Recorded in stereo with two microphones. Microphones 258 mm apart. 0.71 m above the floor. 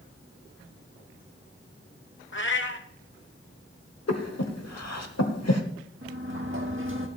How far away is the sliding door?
About 1.5 m.